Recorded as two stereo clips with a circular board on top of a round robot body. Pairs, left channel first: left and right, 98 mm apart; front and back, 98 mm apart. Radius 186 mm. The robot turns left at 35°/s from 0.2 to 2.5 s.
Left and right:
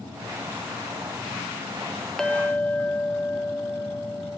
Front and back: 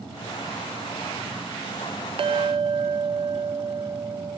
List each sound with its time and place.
2.2 s a clink: 175° left, 0.6 m; by 4.4 s 165° left, 0.6 m